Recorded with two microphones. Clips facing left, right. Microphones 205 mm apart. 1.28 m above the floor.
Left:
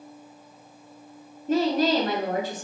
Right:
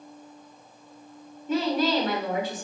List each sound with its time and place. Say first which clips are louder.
1.5 s a woman speaking: left 2 dB; 45° left (ahead or behind), 2.5 m